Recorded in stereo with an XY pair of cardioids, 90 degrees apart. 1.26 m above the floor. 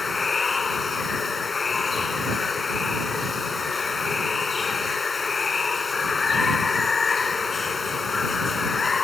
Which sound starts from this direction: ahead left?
Running water, at 0.0 s.